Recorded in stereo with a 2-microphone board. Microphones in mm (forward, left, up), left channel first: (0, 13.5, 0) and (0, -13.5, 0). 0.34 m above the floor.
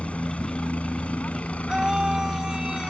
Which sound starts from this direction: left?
A helicopter, at 0.0 s.